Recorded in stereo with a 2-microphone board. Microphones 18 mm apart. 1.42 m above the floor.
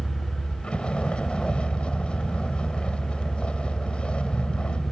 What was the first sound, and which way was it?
A vehicle, 70° left (ahead or behind).